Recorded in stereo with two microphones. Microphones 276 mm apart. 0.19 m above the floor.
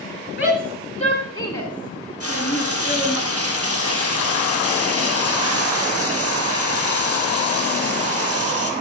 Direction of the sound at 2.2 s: 60° right (ahead or behind).